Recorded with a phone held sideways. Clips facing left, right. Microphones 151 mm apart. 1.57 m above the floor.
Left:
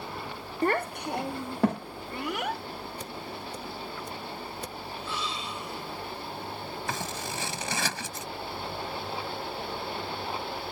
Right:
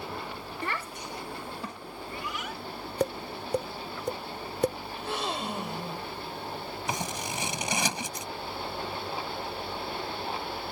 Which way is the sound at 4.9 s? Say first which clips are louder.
Right 3 dB; 60° right (ahead or behind).